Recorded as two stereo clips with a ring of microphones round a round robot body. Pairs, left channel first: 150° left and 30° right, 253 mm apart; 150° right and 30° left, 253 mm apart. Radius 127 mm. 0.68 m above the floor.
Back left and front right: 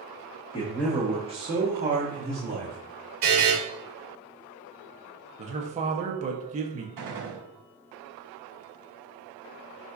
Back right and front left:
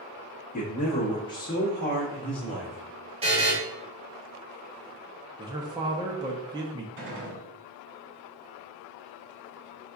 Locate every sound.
0.5 s a man speaking: 160° right, 0.8 m; by 2.8 s 60° right, 2.0 m
3.2 s a buzzer: 35° right, 2 m
5.4 s a man speaking: 25° right, 0.5 m
7.0 s a gunshot: 15° right, 1.9 m